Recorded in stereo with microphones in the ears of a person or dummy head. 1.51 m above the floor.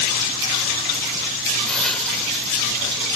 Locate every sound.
1.7 s a hiss: 5° left (ahead or behind)